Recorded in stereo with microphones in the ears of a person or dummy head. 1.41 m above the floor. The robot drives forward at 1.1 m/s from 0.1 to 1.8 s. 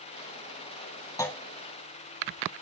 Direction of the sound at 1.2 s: 15° left (ahead or behind).